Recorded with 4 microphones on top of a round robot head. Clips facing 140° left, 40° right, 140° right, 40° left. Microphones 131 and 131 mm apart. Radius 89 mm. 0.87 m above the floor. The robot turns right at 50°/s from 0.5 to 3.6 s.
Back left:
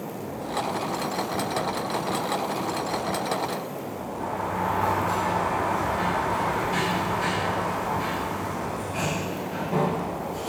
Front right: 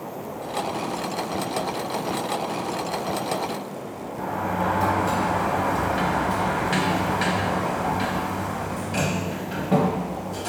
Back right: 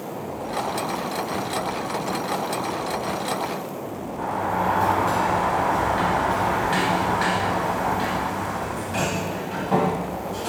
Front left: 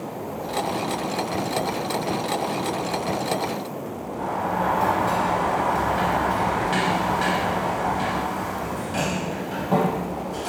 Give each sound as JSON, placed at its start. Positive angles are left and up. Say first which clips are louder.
{"t": 4.2, "sound": "a sliding door", "louder": "front right 3 dB, even", "azimuth_deg": -45, "distance_m": 0.6}